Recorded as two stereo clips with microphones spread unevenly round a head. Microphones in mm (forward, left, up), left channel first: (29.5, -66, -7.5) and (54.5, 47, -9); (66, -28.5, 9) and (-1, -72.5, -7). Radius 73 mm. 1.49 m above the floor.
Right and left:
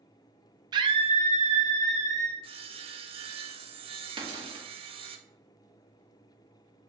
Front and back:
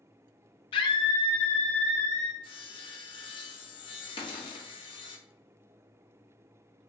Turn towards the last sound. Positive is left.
turn(degrees=35)